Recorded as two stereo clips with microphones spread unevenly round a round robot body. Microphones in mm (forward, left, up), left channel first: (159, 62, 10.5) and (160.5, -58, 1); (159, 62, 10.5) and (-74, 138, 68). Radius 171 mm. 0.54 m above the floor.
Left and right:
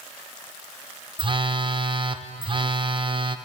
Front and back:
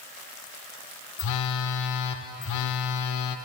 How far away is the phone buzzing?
About 0.5 m.